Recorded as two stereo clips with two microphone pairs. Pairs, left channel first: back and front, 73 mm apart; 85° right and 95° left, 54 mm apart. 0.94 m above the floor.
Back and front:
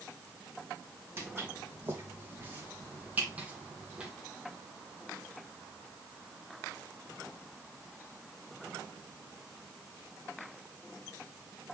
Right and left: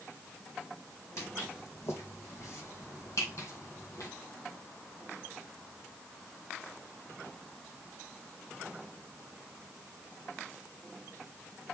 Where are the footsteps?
55° right, 3.5 m; by 4.1 s 75° right, 2 m.